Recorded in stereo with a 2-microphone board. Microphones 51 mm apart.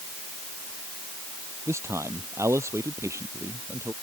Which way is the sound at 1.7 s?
65° right (ahead or behind).